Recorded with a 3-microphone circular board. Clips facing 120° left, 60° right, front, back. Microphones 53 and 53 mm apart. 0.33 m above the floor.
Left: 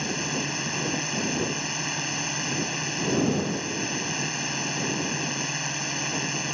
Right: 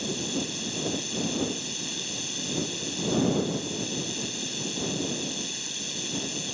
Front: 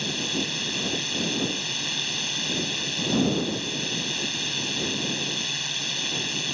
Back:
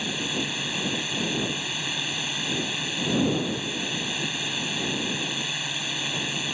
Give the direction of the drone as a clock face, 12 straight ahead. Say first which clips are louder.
Left 2 dB, even; 9 o'clock.